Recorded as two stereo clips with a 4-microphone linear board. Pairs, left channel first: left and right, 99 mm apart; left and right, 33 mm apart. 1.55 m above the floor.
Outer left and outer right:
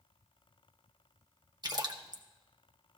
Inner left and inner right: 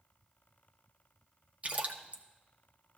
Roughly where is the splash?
Right.